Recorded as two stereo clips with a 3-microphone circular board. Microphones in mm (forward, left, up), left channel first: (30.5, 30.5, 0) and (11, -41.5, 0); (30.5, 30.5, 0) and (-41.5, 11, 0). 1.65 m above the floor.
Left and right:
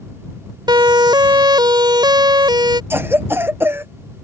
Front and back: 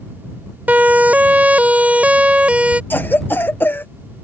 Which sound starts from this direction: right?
A siren, at 0.7 s.